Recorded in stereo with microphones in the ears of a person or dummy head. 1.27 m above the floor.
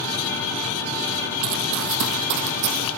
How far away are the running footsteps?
About 1.9 m.